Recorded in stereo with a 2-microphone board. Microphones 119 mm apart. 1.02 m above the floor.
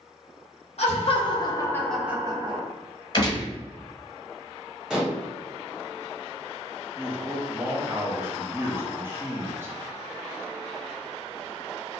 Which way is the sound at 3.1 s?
40° left (ahead or behind).